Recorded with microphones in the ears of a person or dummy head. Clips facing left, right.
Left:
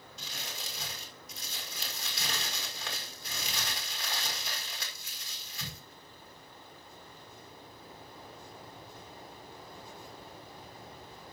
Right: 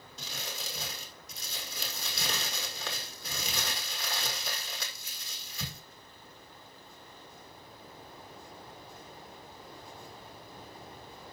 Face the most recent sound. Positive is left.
turn(degrees=-85)